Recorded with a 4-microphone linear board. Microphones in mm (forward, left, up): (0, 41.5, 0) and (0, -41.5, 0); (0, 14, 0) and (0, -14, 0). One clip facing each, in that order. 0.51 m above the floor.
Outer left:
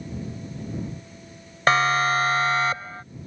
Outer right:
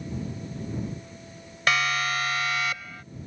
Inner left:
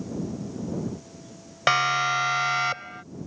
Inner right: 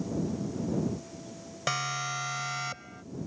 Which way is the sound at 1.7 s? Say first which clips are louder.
Outer left 6 dB, inner left 10 dB; 35° left (ahead or behind).